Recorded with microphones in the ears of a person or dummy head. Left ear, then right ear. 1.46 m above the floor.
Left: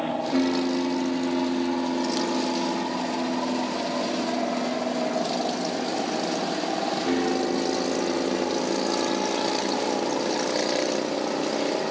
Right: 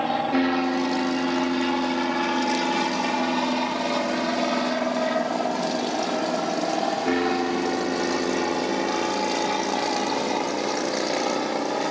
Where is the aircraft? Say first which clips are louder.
Right 3 dB; 40° right (ahead or behind); by 11.9 s 75° right (ahead or behind).